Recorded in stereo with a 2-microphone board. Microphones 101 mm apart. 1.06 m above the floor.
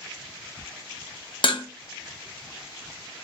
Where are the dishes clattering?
60° left (ahead or behind), 0.5 m.